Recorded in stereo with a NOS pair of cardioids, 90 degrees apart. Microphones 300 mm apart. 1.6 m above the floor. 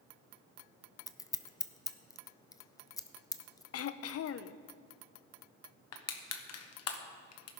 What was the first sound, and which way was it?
Scissors, 10° left.